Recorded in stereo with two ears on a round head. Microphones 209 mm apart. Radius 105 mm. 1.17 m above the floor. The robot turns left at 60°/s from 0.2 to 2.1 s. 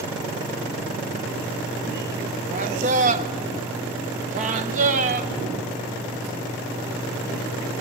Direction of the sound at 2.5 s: 35° right (ahead or behind).